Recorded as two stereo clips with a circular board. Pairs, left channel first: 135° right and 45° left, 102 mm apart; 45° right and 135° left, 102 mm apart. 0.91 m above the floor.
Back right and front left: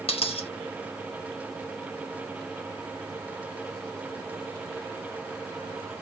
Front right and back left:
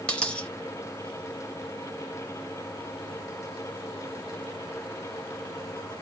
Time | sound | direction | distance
0.1 | a dropped coin | 125° right | 0.7 m